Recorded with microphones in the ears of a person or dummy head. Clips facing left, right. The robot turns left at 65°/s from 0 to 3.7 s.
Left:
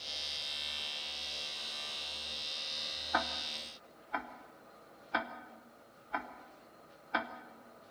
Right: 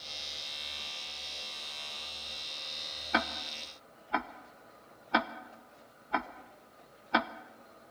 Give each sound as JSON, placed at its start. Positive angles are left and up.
{"t": 3.1, "sound": "ticking", "side_deg": -40, "distance_m": 0.9}